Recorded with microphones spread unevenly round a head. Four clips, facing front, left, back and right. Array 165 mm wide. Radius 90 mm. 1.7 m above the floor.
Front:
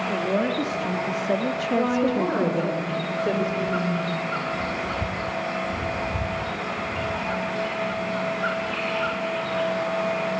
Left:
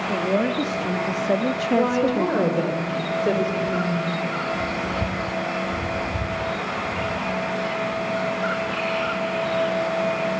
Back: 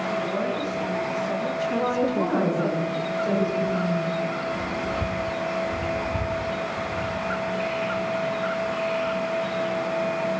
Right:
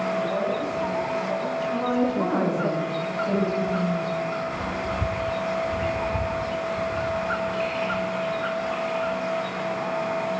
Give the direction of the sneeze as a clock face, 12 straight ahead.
I don't hear a sneeze.